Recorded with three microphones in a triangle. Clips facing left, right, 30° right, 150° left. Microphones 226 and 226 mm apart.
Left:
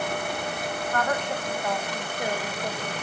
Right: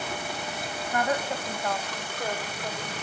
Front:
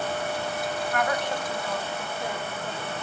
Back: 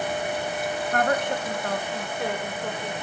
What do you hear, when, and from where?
0.9 s a woman speaking: 160° right, 1.1 m; by 2.9 s 145° left, 1.4 m